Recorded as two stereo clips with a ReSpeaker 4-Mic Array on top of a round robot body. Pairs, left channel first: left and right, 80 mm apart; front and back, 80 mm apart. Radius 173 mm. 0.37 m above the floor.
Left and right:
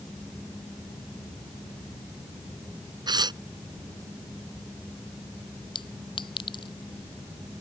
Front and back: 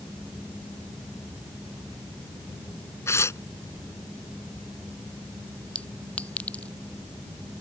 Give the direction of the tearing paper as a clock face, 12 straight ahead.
2 o'clock.